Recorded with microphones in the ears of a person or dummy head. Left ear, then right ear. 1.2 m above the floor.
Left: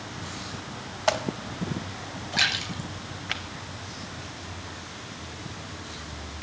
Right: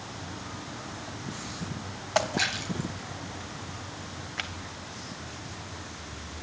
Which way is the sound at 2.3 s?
55° left (ahead or behind).